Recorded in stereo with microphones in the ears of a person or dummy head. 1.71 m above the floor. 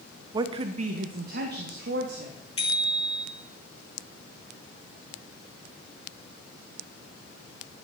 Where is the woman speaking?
30° right (ahead or behind), 0.9 m; by 2.4 s 70° right (ahead or behind), 3 m.